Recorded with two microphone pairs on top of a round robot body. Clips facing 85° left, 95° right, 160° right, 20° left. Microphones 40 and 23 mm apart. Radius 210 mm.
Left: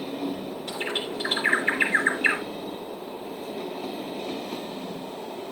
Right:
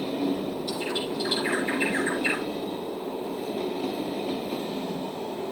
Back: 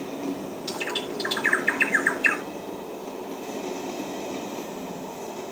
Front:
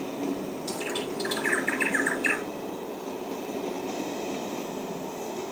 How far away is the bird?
About 3.5 m.